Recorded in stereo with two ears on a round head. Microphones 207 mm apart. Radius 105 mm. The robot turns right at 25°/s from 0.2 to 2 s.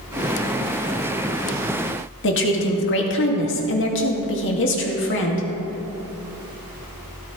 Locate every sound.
2.2 s a woman speaking: 55° left (ahead or behind), 2 m